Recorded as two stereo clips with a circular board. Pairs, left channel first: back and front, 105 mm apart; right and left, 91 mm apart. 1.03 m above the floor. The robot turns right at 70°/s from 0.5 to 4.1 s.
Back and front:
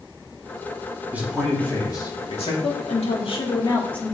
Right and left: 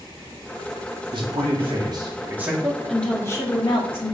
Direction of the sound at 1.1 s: 70° left.